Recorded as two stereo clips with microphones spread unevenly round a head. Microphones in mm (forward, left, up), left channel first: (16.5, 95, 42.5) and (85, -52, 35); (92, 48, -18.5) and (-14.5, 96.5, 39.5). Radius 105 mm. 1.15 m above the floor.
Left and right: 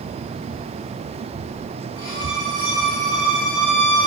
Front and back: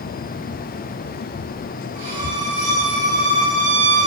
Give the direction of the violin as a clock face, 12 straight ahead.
5 o'clock.